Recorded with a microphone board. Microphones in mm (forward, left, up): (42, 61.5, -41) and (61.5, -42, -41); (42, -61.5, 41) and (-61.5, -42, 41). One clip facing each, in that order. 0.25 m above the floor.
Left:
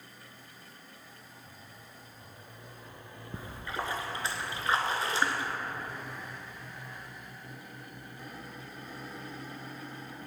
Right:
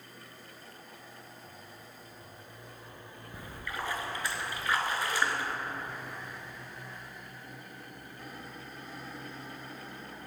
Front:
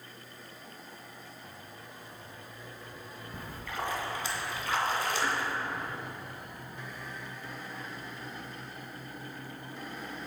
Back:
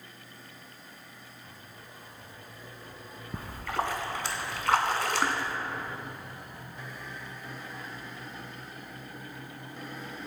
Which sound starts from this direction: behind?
A splash, at 3.3 s.